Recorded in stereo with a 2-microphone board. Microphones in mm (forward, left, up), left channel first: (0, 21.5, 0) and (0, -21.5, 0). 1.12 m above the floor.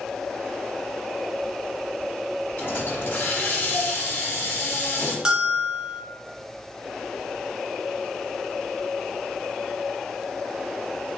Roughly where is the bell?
Right.